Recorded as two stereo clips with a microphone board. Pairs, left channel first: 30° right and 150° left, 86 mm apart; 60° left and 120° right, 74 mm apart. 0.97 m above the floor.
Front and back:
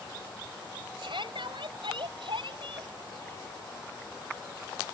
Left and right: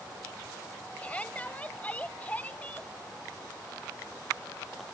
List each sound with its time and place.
1.0 s a shout: 130° left